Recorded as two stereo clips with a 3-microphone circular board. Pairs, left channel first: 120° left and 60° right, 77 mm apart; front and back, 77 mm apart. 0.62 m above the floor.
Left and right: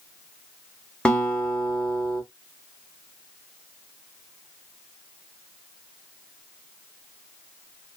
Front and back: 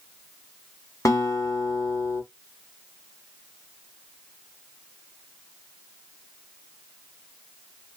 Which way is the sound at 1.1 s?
45° left.